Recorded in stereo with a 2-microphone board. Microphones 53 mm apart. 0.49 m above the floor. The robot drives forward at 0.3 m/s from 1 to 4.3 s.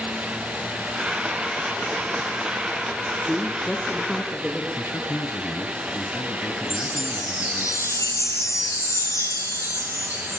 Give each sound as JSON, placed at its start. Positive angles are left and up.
{"t": 3.2, "sound": "a woman speaking", "side_deg": 10, "distance_m": 4.0}
{"t": 4.8, "sound": "a man speaking", "side_deg": 75, "distance_m": 3.5}
{"t": 6.7, "sound": "a chime", "side_deg": 75, "distance_m": 4.0}